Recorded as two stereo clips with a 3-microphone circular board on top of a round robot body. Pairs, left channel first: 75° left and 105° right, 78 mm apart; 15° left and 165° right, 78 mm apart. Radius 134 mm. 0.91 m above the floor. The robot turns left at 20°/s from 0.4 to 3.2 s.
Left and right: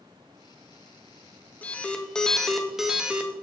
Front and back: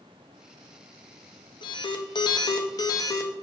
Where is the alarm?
5° left, 1.0 m; by 3.3 s 25° right, 1.0 m.